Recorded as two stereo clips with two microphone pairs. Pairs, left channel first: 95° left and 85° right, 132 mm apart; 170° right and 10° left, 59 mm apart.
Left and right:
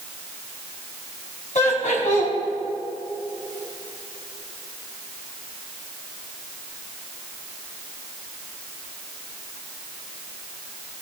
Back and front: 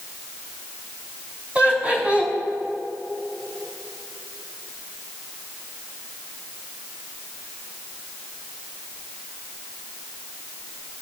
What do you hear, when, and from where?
1.6 s laughter: 75° left, 4 m